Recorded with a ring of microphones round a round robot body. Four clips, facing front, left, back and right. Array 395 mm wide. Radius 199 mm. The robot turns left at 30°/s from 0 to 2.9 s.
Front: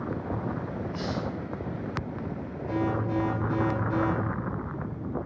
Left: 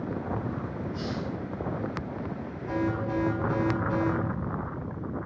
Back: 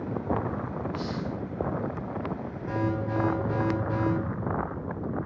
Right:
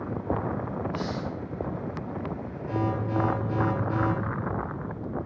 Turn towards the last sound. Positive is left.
turn(degrees=150)